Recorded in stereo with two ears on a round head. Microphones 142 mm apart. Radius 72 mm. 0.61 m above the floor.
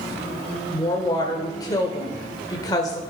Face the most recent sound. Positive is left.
turn(degrees=25)  # may be behind; listen again after turning